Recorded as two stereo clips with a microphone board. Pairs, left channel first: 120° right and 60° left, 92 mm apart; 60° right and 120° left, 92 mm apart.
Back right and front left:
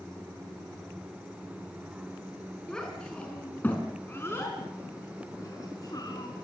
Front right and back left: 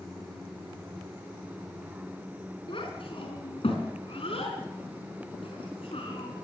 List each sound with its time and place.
2.7 s a child speaking: 40° right, 5 m; by 6.3 s 80° right, 5 m